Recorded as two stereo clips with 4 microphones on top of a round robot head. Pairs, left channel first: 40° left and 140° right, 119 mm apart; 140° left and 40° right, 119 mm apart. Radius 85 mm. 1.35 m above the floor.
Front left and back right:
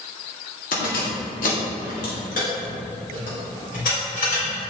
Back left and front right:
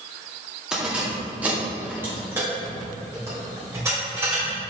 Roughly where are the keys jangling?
Ahead left.